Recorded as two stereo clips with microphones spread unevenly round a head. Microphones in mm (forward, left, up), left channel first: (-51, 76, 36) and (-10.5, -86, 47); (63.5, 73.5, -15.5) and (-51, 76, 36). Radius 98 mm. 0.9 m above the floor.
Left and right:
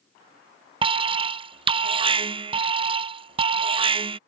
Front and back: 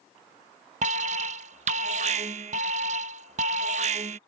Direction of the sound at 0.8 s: 130° right.